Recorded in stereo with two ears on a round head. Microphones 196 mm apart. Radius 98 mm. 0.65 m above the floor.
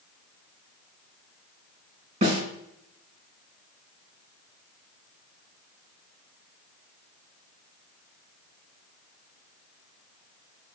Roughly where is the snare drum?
Right.